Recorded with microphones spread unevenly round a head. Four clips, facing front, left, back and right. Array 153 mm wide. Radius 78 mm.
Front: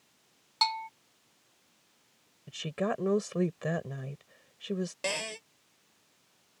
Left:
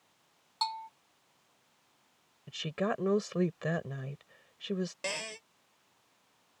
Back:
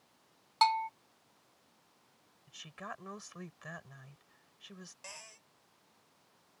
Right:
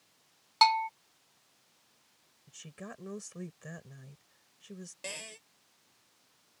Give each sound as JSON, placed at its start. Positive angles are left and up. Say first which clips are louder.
{"t": 0.6, "sound": "a bell", "louder": "right 11 dB, back 4 dB", "azimuth_deg": -85}
{"t": 2.5, "sound": "a woman speaking", "louder": "left 14 dB, front 15 dB", "azimuth_deg": 50}
{"t": 5.0, "sound": "a cupboard door", "louder": "left 7 dB, front 19 dB", "azimuth_deg": 20}